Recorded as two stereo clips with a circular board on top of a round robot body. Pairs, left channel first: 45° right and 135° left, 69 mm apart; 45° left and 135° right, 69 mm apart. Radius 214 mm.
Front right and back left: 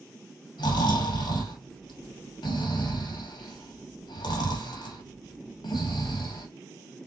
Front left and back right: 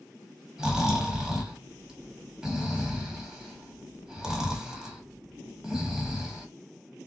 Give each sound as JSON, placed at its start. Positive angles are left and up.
{"t": 0.6, "sound": "snoring", "azimuth_deg": -50, "distance_m": 1.4}